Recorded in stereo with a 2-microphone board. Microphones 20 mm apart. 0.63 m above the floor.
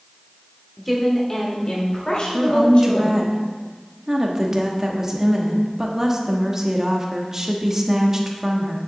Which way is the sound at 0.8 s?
5° left (ahead or behind).